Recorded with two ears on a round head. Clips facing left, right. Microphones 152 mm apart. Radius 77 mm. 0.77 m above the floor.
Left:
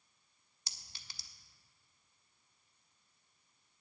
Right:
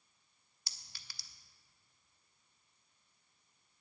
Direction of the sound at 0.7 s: 20° left (ahead or behind).